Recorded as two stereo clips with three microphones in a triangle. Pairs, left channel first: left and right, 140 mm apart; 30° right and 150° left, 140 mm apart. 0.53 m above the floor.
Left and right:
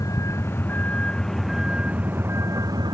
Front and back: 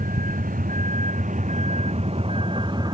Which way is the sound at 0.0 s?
155° left.